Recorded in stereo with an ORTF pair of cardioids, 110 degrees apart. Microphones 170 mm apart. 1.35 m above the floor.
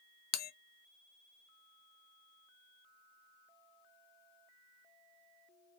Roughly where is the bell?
Ahead left.